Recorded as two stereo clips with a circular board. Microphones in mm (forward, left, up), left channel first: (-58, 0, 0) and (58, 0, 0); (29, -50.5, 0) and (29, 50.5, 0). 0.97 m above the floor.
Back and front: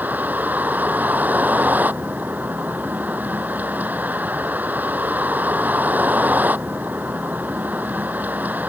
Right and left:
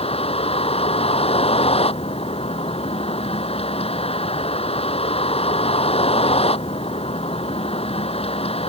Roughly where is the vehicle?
Right.